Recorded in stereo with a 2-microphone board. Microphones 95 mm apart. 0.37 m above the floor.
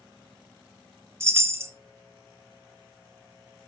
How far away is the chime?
About 0.8 m.